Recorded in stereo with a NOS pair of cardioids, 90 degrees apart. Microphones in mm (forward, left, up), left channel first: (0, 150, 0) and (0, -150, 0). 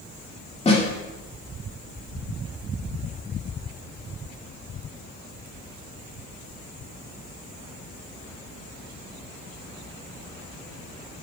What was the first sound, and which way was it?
A snare drum, 20° left.